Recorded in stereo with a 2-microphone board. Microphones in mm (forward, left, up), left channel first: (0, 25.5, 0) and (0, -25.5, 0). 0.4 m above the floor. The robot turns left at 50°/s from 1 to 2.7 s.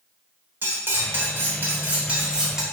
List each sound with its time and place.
0.6 s cutlery clinking: 85° right, 0.6 m; by 2.6 s 165° right, 0.6 m